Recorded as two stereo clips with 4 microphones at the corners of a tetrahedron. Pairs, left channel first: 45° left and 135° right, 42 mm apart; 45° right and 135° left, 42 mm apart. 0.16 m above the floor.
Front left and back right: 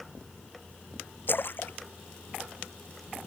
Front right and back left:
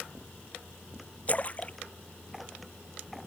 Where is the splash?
10° left.